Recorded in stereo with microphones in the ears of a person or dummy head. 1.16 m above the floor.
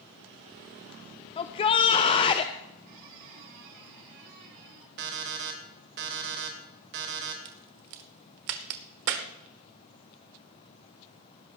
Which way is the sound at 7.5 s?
60° right (ahead or behind).